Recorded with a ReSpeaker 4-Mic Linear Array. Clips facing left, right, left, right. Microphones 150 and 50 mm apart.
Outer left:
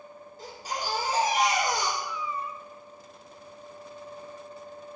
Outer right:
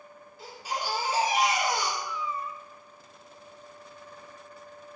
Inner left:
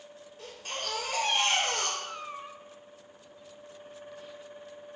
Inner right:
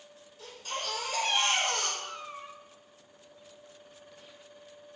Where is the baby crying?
45° left (ahead or behind), 2.5 m.